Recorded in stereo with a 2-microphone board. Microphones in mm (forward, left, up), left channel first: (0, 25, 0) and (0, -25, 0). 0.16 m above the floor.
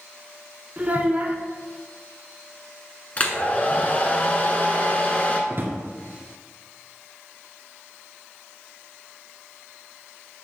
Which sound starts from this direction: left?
A hair dryer, at 3.2 s.